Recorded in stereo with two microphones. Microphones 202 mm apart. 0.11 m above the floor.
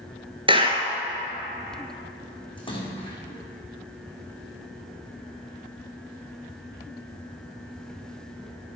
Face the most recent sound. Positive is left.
turn(degrees=25)  # may be behind; listen again after turning